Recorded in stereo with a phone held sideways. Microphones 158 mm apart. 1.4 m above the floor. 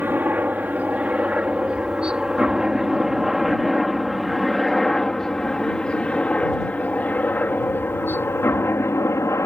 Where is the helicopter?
10° right (ahead or behind); by 9.5 s 15° left (ahead or behind).